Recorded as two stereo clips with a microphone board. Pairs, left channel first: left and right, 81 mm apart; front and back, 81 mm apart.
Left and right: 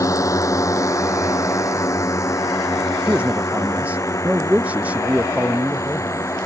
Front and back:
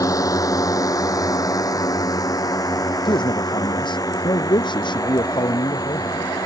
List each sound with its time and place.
0.0 s a drone: 45° left; by 6.5 s 40° left
3.0 s a man speaking: 15° right